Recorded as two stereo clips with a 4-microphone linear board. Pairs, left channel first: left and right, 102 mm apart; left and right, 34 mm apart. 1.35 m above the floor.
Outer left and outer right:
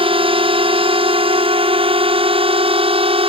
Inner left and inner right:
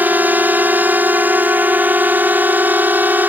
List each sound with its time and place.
0.0 s a drone: 60° right (ahead or behind); by 3.3 s 65° right (ahead or behind)